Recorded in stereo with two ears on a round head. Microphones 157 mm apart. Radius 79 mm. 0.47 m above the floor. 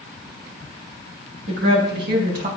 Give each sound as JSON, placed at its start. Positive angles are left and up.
{"t": 1.5, "sound": "a woman speaking", "side_deg": -65, "distance_m": 3.5}